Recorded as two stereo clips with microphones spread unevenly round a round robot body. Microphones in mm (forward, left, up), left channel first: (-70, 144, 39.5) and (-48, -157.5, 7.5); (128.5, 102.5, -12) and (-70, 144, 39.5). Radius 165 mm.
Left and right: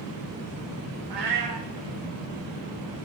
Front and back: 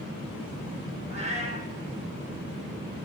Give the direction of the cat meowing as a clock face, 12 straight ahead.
3 o'clock.